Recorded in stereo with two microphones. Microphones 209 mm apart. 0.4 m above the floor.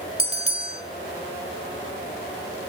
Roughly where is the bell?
Right.